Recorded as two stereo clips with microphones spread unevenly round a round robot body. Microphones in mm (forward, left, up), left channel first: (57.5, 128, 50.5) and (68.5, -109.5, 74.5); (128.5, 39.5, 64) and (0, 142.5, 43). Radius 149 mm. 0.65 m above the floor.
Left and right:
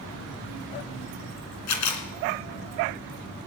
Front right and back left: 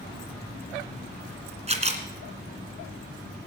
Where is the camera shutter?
90° left, 2.5 m.